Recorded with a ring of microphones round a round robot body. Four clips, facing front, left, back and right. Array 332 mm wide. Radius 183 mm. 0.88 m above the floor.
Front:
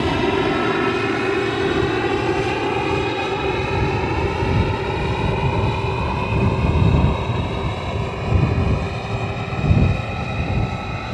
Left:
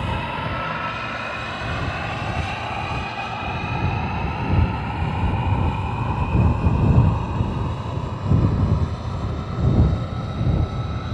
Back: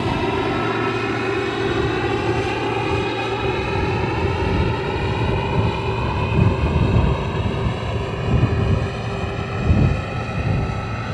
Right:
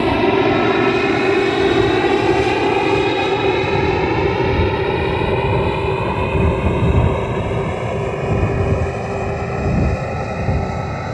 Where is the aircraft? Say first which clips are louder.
Right 13 dB, front 2 dB; 85° right; by 11.2 s 105° right.